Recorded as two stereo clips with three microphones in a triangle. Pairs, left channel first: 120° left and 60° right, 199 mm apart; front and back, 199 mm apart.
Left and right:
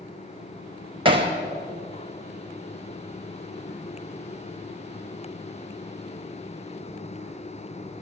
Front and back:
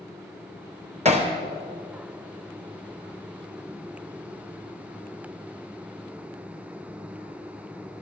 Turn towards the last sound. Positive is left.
turn(degrees=-125)